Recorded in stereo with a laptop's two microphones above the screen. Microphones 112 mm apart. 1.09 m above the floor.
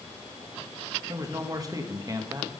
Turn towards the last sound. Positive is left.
turn(degrees=-30)  # may be behind; listen again after turning